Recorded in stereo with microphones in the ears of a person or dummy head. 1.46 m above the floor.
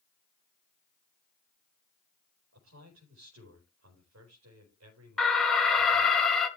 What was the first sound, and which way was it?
A man speaking, 85° right.